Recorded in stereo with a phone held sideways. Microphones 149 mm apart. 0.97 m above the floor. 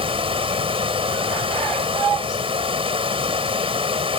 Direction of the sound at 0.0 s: 40° right (ahead or behind).